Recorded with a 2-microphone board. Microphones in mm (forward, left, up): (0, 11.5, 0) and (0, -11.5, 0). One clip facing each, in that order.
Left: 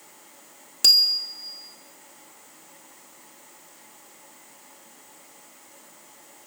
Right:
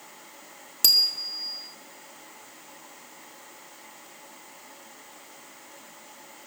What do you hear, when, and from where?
0.8 s a bicycle bell: 15° left (ahead or behind), 2.5 m